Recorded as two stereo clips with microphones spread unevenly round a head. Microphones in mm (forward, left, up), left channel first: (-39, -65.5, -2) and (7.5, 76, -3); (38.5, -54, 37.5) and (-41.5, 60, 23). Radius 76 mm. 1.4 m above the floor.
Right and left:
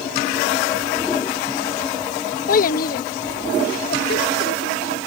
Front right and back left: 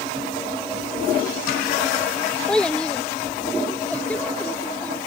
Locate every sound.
2.5 s a child speaking: 135° right